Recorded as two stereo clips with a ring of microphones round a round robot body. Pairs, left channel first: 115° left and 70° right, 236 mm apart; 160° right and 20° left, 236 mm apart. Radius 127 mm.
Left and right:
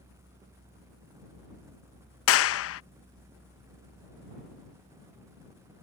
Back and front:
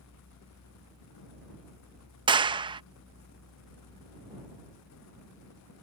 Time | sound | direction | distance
2.3 | a clap | 90° left | ?